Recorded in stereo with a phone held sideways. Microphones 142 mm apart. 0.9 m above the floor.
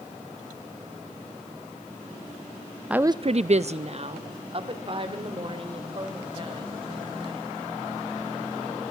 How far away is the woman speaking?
About 0.6 m.